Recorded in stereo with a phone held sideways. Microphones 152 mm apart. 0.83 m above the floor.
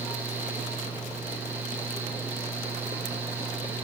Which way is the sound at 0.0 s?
15° right (ahead or behind).